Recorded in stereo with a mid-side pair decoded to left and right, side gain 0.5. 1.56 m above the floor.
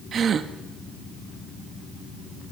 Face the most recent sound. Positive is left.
turn(degrees=-45)